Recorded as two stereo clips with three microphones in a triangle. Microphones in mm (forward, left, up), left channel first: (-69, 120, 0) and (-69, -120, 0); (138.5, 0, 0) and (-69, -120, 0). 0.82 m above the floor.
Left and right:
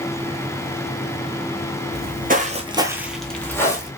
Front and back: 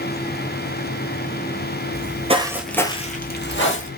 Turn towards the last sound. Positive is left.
turn(degrees=20)